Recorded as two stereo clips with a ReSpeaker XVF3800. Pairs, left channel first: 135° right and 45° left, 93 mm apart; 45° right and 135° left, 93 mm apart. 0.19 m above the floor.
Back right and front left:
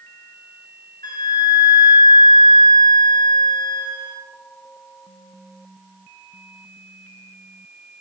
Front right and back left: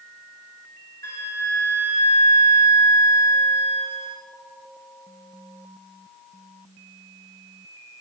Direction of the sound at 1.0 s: 95° right.